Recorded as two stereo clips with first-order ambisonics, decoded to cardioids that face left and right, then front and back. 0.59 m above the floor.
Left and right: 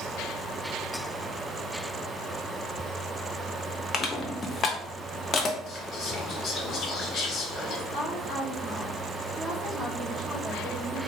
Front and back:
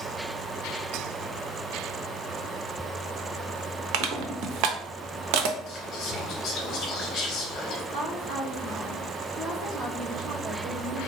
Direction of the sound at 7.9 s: Straight behind.